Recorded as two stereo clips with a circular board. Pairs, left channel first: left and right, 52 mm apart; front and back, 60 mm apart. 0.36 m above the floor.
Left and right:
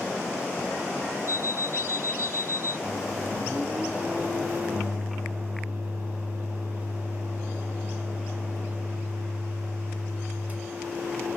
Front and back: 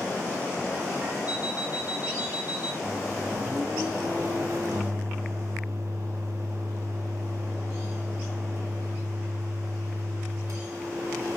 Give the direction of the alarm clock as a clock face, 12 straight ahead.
8 o'clock.